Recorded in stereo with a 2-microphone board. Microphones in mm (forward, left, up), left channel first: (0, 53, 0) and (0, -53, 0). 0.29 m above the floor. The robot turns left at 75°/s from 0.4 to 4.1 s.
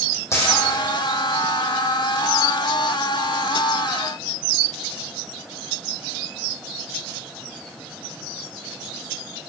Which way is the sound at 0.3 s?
30° left (ahead or behind).